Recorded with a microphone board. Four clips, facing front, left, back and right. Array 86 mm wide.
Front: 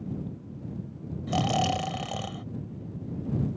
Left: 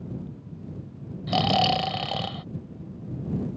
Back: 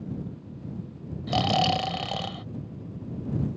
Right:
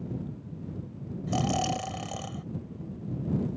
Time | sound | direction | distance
1.3 | snoring | 115° left | ?